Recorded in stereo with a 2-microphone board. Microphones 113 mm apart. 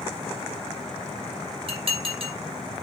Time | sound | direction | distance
1.7 | dishes clattering | 50° right (ahead or behind) | 2.5 m